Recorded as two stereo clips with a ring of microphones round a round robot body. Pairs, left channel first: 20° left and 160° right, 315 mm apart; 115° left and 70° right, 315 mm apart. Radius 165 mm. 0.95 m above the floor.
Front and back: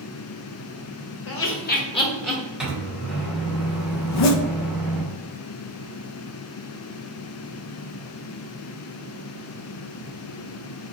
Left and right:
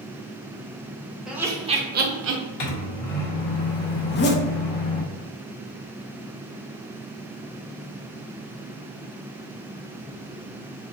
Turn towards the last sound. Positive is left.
turn(degrees=55)